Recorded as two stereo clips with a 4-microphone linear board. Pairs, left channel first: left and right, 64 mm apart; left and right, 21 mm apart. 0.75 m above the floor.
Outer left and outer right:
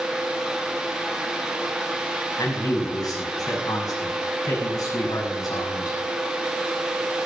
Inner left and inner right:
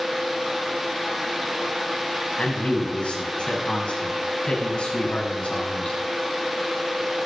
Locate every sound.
2.4 s a man speaking: 75° left (ahead or behind), 6 m